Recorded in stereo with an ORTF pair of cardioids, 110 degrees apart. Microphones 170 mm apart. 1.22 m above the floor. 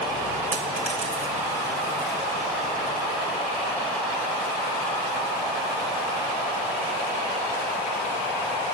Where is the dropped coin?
45° right, 3 m.